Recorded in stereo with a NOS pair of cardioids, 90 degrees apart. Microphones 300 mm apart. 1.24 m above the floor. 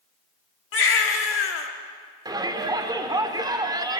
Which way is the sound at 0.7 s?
45° left.